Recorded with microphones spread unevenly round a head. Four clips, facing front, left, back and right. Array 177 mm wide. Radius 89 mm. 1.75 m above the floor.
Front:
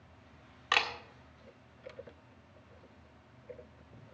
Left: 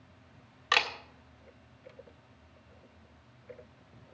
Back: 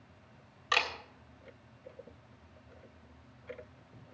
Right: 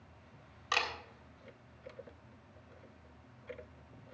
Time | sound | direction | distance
0.7 | a camera shutter | 60° left | 1.5 m